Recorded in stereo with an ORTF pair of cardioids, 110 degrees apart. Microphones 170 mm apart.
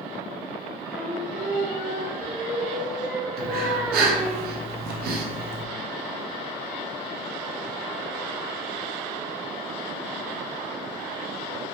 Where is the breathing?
70° right, 0.7 m.